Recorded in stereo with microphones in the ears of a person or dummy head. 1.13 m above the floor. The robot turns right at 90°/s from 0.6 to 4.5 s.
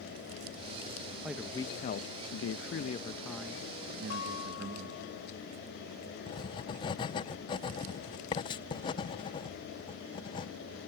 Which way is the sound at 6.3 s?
25° left (ahead or behind).